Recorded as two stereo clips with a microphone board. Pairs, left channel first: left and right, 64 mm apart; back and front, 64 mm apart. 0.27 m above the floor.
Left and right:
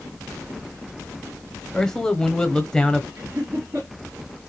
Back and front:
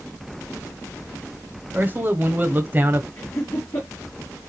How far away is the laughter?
About 3.5 m.